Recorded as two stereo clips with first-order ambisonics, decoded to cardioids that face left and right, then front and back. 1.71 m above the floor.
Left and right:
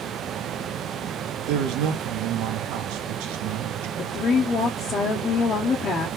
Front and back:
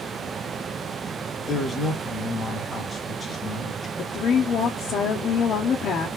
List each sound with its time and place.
1.4 s a man speaking: 80° right, 1.0 m
4.0 s a woman speaking: 35° left, 0.6 m